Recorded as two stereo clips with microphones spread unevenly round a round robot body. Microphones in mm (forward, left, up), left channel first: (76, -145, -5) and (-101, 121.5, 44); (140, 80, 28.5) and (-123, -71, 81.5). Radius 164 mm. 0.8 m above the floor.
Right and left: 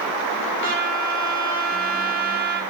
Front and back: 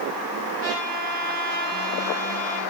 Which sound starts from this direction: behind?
A trumpet, at 0.6 s.